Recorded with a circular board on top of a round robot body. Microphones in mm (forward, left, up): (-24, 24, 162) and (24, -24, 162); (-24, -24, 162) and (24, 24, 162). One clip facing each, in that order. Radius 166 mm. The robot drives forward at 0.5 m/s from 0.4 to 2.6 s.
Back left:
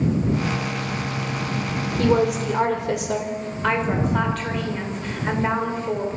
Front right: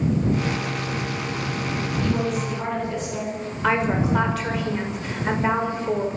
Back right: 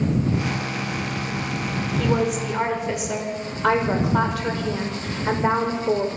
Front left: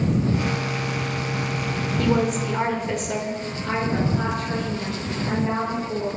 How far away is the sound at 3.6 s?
About 5.5 m.